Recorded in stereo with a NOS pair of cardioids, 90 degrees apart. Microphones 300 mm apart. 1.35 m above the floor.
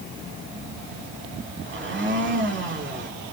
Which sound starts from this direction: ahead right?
A blender, at 1.7 s.